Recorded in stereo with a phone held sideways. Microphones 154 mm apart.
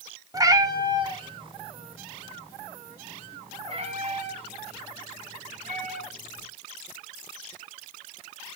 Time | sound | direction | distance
0.3 | a cat meowing | 25° right (ahead or behind) | 1.2 m